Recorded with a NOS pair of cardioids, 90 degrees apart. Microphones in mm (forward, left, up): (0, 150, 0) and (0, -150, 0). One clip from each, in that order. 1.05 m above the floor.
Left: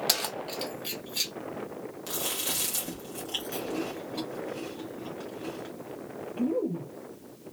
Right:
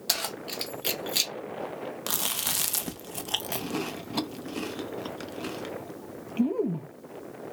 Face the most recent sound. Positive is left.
turn(degrees=-60)